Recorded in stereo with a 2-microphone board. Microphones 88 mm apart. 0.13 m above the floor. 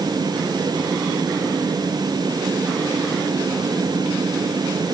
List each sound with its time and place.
Only background noise.